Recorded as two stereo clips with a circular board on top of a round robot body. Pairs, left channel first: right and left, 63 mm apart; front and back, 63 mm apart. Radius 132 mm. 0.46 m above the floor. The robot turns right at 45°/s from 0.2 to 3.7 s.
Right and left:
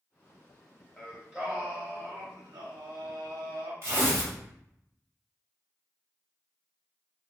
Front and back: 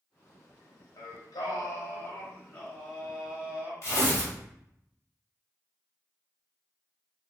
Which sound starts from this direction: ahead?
Singing, at 1.0 s.